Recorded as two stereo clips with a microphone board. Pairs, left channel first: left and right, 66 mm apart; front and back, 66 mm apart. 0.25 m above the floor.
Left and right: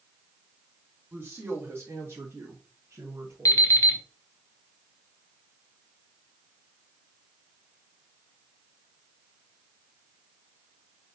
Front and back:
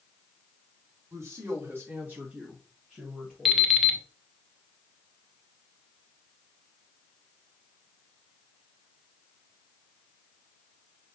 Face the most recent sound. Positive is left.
turn(degrees=90)